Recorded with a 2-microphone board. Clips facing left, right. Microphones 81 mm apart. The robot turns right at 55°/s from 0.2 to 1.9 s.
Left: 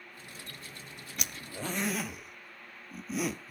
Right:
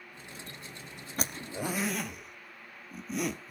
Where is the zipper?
35° right (ahead or behind), 0.7 m; by 3.5 s centre (ahead or behind), 0.7 m.